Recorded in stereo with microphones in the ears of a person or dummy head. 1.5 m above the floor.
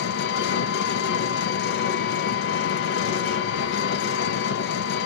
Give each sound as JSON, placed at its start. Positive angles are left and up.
{"t": 0.0, "sound": "an engine running", "side_deg": 55, "distance_m": 1.0}